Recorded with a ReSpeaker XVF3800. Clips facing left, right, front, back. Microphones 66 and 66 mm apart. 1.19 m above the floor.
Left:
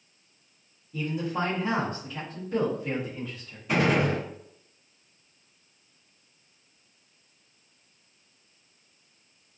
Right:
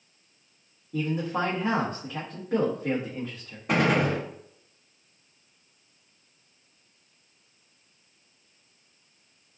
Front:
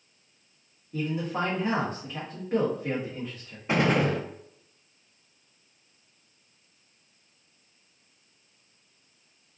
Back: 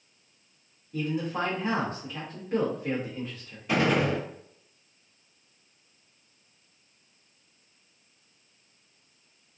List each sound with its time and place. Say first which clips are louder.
0.9 s a man speaking: right 2 dB, even; 70° right, 0.8 m
3.7 s a gunshot: right 1 dB, front 1 dB; 60° right, 0.9 m